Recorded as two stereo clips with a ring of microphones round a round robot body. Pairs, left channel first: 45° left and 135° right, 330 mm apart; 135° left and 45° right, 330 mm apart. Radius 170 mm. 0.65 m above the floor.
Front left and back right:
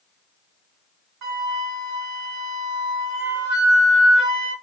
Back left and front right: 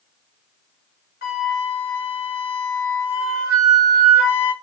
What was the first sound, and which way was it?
A flute, 165° right.